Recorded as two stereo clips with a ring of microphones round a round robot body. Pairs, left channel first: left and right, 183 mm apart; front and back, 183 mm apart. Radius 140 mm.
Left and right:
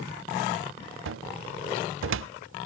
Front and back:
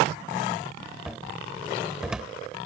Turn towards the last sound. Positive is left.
turn(degrees=-95)